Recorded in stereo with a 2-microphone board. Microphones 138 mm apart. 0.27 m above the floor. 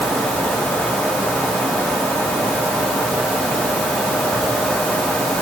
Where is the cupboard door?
I don't hear a cupboard door.